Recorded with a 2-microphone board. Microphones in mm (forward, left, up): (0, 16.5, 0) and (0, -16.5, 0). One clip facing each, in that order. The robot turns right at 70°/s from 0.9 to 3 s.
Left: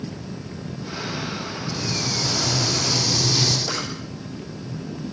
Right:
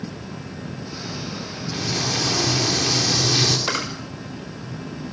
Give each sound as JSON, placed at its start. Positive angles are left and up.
{"t": 1.7, "sound": "frying", "azimuth_deg": -125, "distance_m": 4.5}
{"t": 3.7, "sound": "a camera shutter", "side_deg": -65, "distance_m": 6.0}